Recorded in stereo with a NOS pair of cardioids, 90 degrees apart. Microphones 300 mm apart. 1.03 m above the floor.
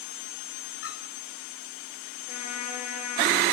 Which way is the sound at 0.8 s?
50° left.